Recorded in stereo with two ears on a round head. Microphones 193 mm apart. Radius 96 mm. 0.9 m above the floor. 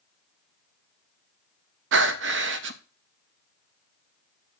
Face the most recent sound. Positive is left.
turn(degrees=-60)  # may be behind; listen again after turning